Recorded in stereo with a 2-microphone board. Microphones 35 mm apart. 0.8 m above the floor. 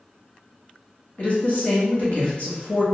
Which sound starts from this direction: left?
A woman speaking, at 1.2 s.